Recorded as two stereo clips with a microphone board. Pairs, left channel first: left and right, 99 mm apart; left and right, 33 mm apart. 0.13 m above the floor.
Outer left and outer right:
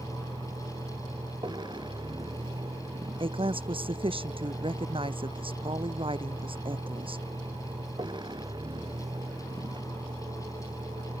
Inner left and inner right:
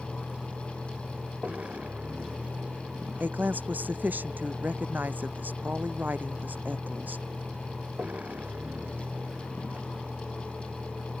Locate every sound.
0.0 s a vehicle: 50° right (ahead or behind)
3.2 s a woman speaking: 65° right (ahead or behind)